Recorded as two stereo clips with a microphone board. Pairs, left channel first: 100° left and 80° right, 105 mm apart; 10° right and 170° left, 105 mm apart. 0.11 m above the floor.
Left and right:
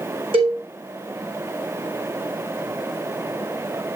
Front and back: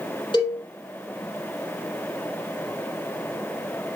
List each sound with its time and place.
0.3 s a cowbell: 50° right, 5.5 m